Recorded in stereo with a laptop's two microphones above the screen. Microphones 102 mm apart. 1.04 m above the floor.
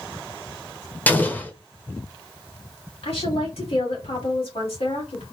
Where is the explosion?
15° left (ahead or behind), 0.9 m.